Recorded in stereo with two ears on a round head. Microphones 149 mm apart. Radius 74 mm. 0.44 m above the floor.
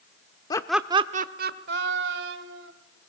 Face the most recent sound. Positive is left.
turn(degrees=-75)  # may be behind; listen again after turning